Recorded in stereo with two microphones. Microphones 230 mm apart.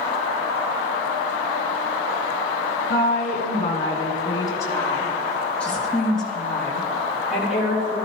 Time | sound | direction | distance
2.9 | a woman speaking | 40° left (ahead or behind) | 2.5 m